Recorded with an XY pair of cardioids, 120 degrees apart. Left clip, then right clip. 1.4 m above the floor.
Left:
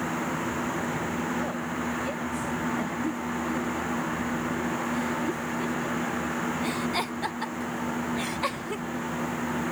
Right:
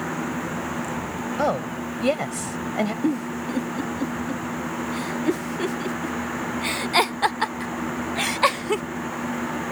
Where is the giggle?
55° right.